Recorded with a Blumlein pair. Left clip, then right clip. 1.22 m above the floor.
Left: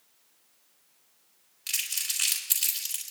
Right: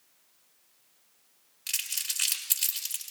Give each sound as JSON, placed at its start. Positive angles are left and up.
{"t": 1.7, "sound": "crumpling", "azimuth_deg": 0, "distance_m": 4.0}